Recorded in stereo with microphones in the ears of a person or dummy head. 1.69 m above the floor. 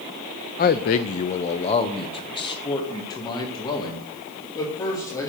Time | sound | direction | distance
0.6 | a man speaking | 30° left (ahead or behind) | 0.5 m